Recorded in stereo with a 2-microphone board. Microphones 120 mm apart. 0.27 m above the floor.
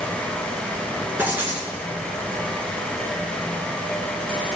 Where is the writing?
15° right (ahead or behind), 2 m.